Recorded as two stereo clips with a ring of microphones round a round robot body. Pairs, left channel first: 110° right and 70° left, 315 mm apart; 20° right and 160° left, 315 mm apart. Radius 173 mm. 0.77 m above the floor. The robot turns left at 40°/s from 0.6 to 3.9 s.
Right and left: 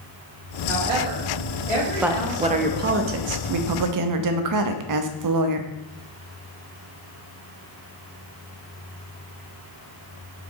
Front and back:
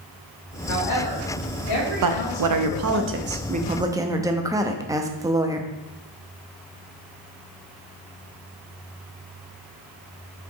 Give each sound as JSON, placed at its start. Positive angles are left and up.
{"t": 0.7, "sound": "a woman speaking", "azimuth_deg": 5, "distance_m": 2.0}
{"t": 2.0, "sound": "a woman speaking", "azimuth_deg": 155, "distance_m": 0.7}